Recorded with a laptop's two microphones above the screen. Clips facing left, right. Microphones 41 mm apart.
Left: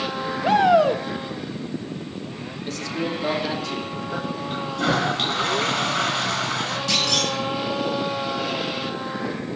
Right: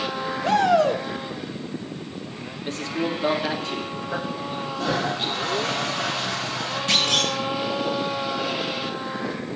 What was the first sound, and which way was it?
A shout, 10° left (ahead or behind).